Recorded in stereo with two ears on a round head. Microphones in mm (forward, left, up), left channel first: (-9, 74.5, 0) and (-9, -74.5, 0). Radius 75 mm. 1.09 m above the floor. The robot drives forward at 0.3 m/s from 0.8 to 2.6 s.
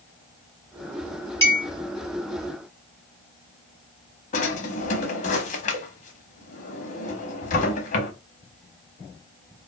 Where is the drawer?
45° left (ahead or behind), 0.6 m.